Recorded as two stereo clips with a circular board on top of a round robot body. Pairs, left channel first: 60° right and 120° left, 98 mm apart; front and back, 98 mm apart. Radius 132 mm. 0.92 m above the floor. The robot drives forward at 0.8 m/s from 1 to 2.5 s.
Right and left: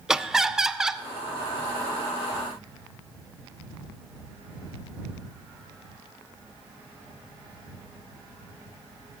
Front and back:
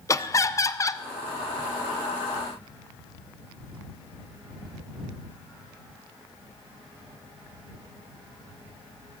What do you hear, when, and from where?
0.1 s laughter: 40° left, 0.6 m